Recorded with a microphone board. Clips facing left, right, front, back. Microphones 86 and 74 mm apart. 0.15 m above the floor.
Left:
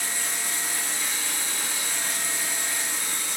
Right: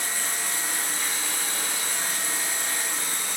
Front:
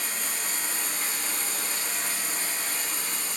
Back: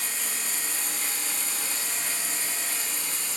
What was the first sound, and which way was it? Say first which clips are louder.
Running water: right 1 dB, front 1 dB; 45° right.